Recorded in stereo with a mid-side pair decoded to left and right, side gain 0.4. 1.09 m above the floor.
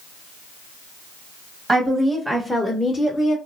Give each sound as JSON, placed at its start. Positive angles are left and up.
{"t": 1.7, "sound": "a woman speaking", "azimuth_deg": -35, "distance_m": 1.0}